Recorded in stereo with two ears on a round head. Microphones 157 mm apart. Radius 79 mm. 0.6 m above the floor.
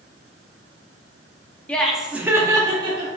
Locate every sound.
1.7 s laughter: 5° left (ahead or behind), 0.5 m; by 3.1 s 25° right (ahead or behind), 0.7 m